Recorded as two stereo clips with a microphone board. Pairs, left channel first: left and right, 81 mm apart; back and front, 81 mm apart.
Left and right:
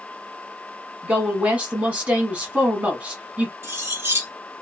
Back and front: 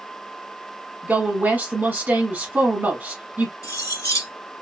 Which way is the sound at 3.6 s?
140° right.